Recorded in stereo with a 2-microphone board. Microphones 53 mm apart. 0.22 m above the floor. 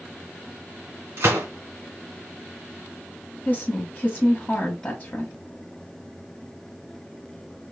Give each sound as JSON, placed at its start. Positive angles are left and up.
{"t": 1.2, "sound": "a gunshot", "side_deg": -50, "distance_m": 2.5}
{"t": 3.5, "sound": "a woman speaking", "side_deg": 35, "distance_m": 1.3}